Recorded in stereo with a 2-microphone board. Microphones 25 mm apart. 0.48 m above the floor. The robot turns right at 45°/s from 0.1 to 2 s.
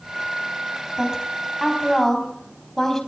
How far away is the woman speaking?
About 3.5 m.